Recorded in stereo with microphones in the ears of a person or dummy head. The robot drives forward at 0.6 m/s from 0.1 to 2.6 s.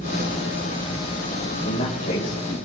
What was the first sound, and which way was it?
A man speaking, 45° left (ahead or behind).